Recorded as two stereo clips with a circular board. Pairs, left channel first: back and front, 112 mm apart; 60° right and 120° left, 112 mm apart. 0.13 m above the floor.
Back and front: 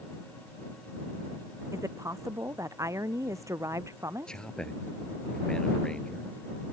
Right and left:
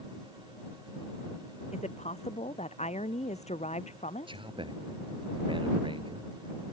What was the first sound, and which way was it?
A woman speaking, 60° right.